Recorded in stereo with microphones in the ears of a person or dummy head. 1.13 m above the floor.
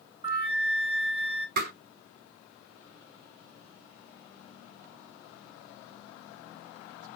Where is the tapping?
55° right (ahead or behind), 3.5 m.